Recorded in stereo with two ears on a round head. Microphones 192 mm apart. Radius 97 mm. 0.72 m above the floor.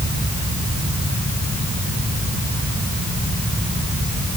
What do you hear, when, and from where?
Only background noise.